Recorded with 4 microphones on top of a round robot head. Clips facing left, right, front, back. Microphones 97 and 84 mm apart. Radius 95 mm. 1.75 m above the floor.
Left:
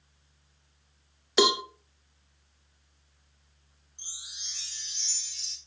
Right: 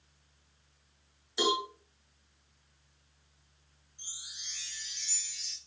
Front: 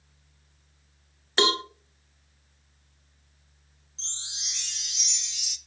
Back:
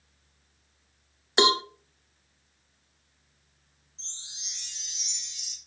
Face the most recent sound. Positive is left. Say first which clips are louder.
# left 1 dB, front 7 dB
turn(degrees=20)